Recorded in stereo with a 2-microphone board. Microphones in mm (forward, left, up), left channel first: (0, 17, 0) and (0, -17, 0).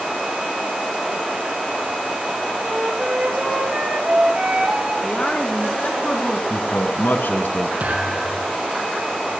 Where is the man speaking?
70° left (ahead or behind), 3 m.